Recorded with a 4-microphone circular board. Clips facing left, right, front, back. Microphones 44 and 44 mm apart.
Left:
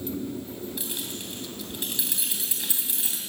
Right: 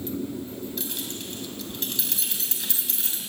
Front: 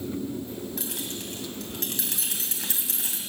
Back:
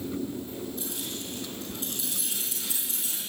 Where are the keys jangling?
10° left, 3 m.